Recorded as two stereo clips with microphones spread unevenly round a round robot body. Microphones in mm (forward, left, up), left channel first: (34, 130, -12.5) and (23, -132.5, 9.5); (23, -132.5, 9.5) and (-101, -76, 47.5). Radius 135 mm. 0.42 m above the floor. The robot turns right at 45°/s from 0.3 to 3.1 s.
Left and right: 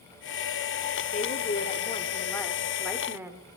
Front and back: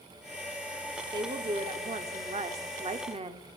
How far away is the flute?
No flute in this recording.